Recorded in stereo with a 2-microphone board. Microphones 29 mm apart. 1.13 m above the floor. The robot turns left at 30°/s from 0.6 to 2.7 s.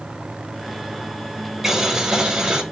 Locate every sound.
1.6 s boiling: 10° right (ahead or behind), 1.2 m; by 2.6 s 40° right (ahead or behind), 1.2 m